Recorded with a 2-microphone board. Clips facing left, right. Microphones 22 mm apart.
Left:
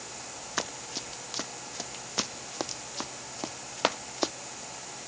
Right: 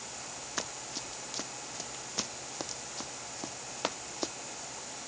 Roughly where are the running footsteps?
Centre.